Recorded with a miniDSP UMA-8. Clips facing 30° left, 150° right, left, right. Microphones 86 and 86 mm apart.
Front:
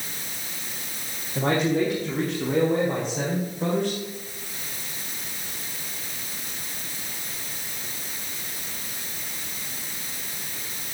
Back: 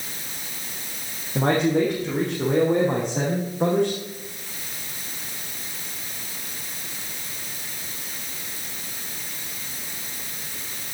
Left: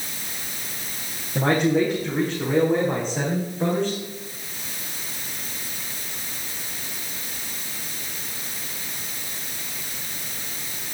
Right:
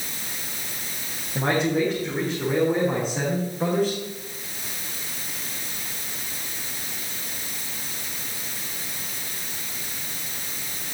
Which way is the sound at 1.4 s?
170° left.